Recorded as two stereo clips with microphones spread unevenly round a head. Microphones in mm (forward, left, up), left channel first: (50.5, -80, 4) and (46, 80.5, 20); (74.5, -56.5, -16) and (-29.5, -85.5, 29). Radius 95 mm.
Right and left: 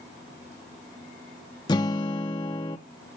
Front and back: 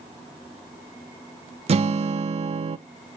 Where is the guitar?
160° right, 0.5 m.